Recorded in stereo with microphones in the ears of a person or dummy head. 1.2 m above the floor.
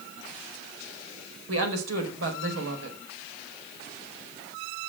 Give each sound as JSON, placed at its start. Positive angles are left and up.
{"t": 1.5, "sound": "a woman speaking", "side_deg": -85, "distance_m": 4.5}